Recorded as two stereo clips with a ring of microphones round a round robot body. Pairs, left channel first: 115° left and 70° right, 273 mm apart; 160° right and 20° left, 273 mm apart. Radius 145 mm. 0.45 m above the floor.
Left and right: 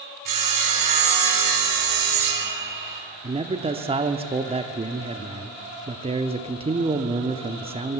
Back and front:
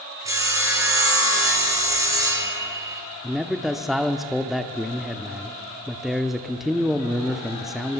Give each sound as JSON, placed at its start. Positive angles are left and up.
{"t": 0.2, "sound": "sawing", "azimuth_deg": -55, "distance_m": 6.0}
{"t": 3.2, "sound": "a man speaking", "azimuth_deg": -65, "distance_m": 0.8}